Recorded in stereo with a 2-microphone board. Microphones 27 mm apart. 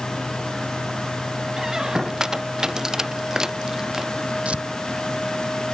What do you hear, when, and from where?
1.6 s a squeak: 20° right (ahead or behind)
4.5 s tearing paper: 45° right (ahead or behind)